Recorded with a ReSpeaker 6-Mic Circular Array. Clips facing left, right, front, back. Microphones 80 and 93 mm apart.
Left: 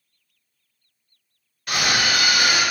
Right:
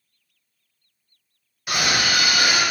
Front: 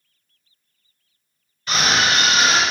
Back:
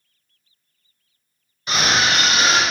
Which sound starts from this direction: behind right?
A scream, at 1.7 s.